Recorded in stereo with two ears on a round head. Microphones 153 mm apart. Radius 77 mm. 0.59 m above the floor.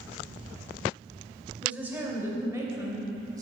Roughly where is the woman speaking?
Centre.